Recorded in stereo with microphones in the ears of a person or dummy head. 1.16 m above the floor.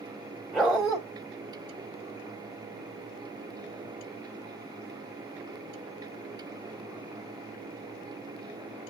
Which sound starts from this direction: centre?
A dog barking, at 0.5 s.